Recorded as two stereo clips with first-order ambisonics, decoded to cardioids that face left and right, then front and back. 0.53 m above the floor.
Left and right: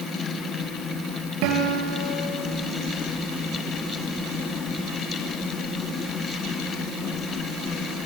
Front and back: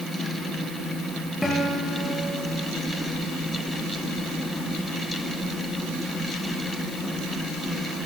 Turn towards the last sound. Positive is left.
turn(degrees=-85)